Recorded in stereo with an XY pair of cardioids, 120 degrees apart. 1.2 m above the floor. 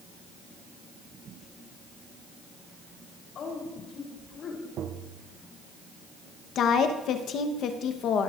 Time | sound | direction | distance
3.4 | a woman speaking | 60° left | 3.5 m
4.8 | tapping | 65° right | 0.8 m
6.5 | a woman speaking | 60° left | 1.1 m